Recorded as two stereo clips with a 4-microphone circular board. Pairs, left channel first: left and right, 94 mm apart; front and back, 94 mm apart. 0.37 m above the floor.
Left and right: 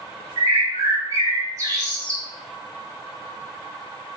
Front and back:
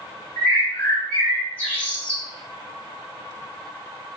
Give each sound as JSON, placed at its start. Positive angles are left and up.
{"t": 0.4, "sound": "a bird", "azimuth_deg": -65, "distance_m": 1.8}